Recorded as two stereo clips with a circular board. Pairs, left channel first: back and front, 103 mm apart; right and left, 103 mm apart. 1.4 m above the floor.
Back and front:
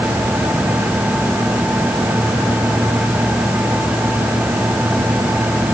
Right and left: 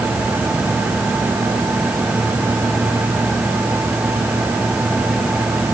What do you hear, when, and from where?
Only background noise.